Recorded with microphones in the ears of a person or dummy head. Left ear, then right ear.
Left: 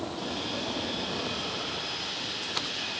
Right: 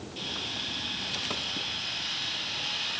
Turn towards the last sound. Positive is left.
turn(degrees=-55)  # may be behind; listen again after turning